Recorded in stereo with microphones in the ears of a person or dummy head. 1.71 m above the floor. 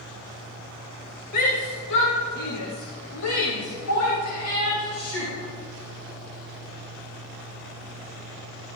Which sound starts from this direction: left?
A shout, at 1.3 s.